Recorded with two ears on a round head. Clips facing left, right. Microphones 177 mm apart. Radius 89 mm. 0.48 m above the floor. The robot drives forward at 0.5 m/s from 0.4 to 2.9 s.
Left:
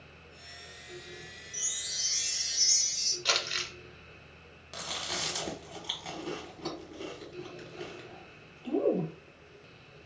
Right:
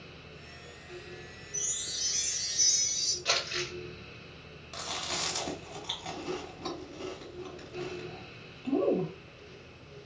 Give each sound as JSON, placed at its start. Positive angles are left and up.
{"t": 1.5, "sound": "a chime", "side_deg": 50, "distance_m": 1.9}
{"t": 3.2, "sound": "crumpling", "side_deg": 60, "distance_m": 1.3}
{"t": 4.7, "sound": "chewing", "side_deg": 5, "distance_m": 1.0}